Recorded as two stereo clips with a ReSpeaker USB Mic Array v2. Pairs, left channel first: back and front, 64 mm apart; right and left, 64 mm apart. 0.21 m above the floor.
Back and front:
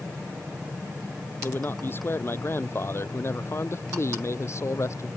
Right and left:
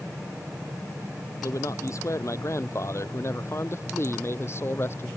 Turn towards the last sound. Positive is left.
turn(degrees=-140)